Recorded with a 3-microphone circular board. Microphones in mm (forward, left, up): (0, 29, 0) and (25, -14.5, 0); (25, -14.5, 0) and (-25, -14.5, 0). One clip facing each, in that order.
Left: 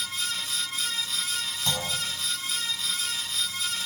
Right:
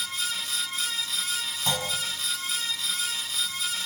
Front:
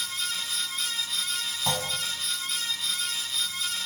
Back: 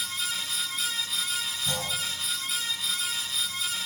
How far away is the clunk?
About 5.5 m.